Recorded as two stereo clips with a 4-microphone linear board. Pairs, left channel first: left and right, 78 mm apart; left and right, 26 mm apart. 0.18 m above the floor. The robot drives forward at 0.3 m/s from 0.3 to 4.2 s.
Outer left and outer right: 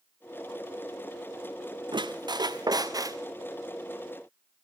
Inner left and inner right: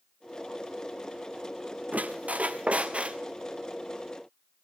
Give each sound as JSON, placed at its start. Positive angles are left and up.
{"t": 1.9, "sound": "a squeak", "side_deg": -70, "distance_m": 0.6}